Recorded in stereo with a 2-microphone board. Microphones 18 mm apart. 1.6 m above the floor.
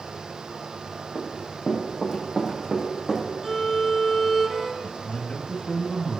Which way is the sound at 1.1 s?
40° right (ahead or behind).